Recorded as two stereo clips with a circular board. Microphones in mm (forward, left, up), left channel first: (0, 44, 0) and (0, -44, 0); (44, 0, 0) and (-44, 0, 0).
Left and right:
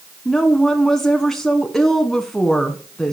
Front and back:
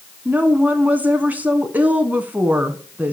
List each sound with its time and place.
0.2 s a woman speaking: 165° left, 1.1 m